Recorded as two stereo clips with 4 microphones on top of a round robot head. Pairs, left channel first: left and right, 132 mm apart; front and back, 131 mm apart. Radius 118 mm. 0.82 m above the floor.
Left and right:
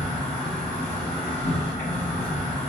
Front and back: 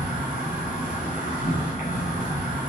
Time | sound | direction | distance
0.0 | an insect | 20° left | 2 m